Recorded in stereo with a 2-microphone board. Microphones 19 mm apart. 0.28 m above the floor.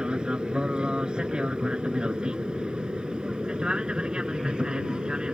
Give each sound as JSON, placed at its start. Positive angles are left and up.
{"t": 0.0, "sound": "an aircraft", "side_deg": -55}